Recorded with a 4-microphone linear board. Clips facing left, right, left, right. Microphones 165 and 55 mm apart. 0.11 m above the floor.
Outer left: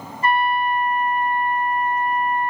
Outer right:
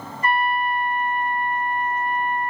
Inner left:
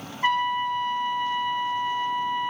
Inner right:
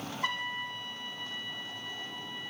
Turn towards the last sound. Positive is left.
turn(degrees=35)  # may be behind; listen again after turning